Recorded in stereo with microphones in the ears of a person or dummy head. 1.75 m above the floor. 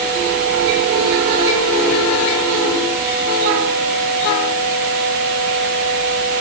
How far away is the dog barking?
No dog barking in this recording.